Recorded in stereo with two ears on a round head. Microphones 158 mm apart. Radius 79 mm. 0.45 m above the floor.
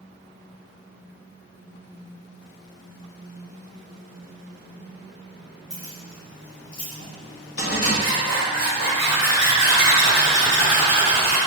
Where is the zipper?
25° left (ahead or behind), 1.9 m.